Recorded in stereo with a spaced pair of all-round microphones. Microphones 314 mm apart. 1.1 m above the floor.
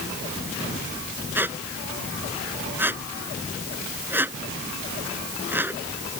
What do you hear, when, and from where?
1.4 s a squeak: 5° right (ahead or behind)